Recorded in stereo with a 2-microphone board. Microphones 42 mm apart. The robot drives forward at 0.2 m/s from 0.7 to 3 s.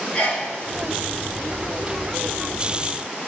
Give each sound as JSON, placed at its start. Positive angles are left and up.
{"t": 0.1, "sound": "a sneeze", "side_deg": 20, "distance_m": 2.5}